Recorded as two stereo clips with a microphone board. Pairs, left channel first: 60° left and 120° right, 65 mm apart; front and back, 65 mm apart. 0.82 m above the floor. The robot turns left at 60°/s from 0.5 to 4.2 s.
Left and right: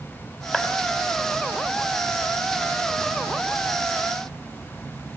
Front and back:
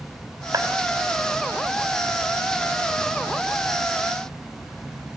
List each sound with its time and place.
0.5 s a clap: 145° left, 4.5 m; by 0.7 s 135° left, 4.5 m